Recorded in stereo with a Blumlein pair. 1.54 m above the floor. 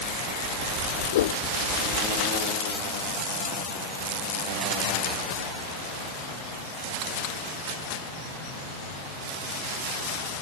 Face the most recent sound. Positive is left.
turn(degrees=55)